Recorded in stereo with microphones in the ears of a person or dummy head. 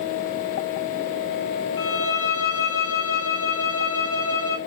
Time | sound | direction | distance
1.8 | a violin | 20° left (ahead or behind) | 2.0 m